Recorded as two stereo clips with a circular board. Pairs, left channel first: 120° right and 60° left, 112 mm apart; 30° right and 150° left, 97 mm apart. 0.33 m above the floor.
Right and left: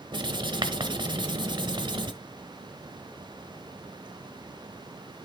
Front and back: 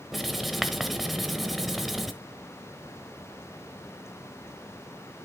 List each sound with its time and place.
0.1 s writing: 60° left, 1.1 m